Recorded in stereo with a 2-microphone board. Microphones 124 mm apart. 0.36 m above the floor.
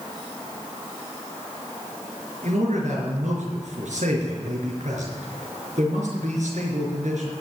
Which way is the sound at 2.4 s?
75° right (ahead or behind).